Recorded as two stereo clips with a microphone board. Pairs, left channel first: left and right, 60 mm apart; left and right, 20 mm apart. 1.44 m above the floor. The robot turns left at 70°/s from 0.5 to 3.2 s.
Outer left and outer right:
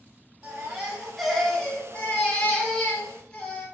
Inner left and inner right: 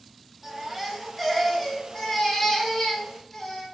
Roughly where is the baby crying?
Centre.